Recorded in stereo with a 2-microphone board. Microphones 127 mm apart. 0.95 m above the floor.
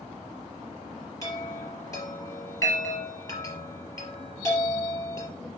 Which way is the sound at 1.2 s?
25° left (ahead or behind).